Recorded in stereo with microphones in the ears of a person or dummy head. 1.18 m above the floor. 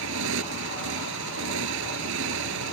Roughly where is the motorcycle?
Right.